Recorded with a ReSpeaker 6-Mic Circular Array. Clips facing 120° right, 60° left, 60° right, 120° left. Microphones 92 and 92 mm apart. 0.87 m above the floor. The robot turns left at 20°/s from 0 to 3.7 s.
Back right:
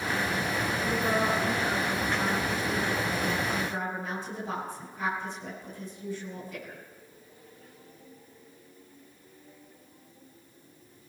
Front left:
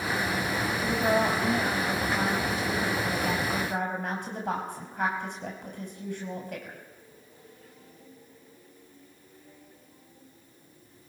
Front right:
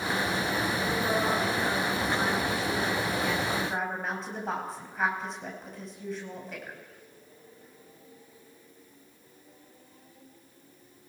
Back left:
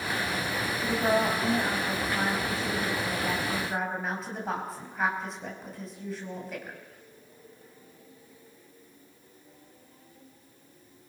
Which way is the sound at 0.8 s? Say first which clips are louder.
Front left 3 dB, back left 5 dB; 90° left.